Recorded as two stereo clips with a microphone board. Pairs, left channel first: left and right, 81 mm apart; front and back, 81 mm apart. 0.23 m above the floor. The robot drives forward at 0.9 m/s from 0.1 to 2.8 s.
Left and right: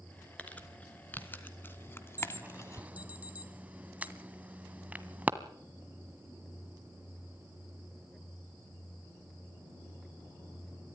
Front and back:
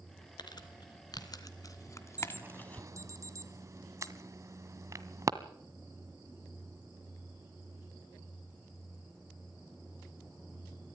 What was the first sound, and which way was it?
Crumpling, 20° left.